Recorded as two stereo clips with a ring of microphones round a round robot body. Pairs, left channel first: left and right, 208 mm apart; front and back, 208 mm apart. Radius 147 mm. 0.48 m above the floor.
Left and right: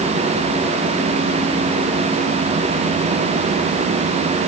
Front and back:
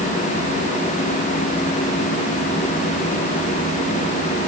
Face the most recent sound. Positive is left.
No sound to turn to.